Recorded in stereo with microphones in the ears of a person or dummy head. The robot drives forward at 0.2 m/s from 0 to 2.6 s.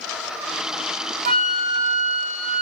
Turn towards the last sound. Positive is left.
turn(degrees=-35)  # may be behind; listen again after turning